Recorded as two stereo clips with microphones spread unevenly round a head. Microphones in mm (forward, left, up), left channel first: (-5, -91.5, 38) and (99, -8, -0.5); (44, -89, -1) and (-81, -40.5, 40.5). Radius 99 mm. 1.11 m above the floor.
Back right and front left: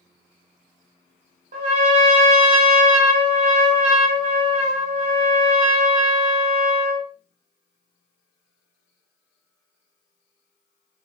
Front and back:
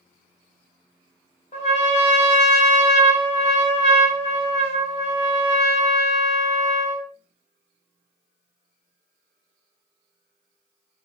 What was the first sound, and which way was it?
A trumpet, 35° left.